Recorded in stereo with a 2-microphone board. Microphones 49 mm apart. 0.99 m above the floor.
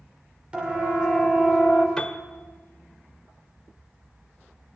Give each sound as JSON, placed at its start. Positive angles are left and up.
{"t": 0.5, "sound": "a siren", "side_deg": -20, "distance_m": 5.5}
{"t": 2.0, "sound": "a piano", "side_deg": 15, "distance_m": 1.5}